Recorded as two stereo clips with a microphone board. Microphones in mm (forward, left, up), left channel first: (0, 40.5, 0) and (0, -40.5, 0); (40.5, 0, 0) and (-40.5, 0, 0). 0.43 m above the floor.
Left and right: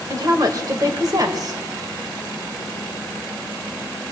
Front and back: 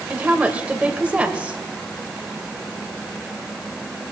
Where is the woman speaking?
110° right, 2 m.